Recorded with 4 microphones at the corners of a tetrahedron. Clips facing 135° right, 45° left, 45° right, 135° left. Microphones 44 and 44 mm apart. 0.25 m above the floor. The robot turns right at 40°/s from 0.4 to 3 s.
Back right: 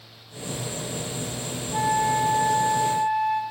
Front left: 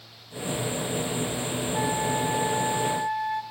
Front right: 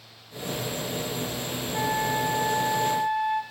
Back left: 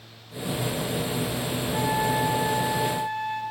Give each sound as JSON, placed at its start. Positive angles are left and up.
{"t": 1.7, "sound": "a flute", "azimuth_deg": -150, "distance_m": 3.0}